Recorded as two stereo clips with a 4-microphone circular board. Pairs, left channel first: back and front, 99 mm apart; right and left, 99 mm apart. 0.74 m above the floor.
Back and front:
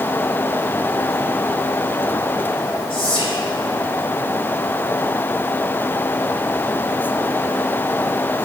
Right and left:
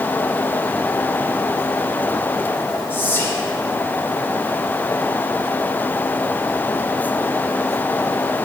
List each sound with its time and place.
2.9 s whispering: 160° right, 2.5 m